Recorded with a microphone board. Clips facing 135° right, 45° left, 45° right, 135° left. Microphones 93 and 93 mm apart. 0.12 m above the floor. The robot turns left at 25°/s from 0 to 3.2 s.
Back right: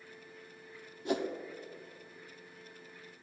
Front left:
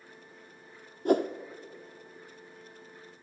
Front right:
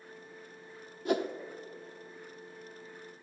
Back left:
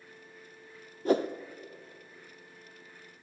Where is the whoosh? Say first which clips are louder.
Front left 8 dB, back left 4 dB; 85° left, 0.9 m; by 1.3 s 80° left, 0.9 m.